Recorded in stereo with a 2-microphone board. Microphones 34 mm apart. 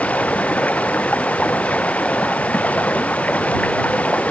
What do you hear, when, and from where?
0.0 s running water: 45° left (ahead or behind)